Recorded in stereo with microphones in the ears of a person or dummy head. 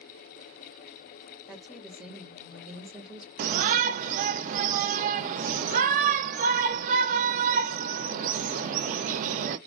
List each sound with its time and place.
1.5 s a woman speaking: centre (ahead or behind), 0.9 m
3.4 s a shout: 45° right (ahead or behind), 0.6 m